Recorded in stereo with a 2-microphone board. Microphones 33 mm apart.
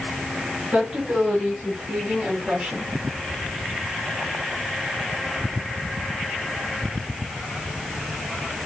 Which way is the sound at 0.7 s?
45° right (ahead or behind).